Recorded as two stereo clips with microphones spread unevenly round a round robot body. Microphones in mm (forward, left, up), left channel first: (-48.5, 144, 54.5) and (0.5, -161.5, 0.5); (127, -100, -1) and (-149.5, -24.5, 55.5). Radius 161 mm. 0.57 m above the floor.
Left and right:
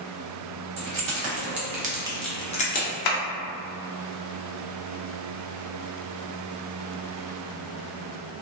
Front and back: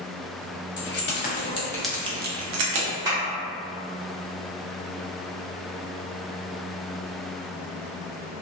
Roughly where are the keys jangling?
Ahead right.